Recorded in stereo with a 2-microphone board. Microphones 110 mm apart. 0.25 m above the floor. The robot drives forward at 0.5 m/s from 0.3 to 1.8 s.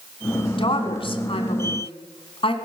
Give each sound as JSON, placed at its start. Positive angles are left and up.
{"t": 0.6, "sound": "a woman speaking", "side_deg": 50, "distance_m": 1.8}